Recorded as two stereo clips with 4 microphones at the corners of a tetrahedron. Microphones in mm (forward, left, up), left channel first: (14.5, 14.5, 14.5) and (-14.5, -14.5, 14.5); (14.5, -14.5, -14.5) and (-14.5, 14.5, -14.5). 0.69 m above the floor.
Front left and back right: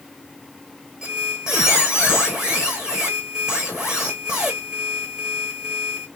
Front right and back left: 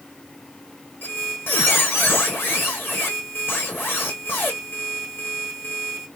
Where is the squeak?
60° right, 1.6 m.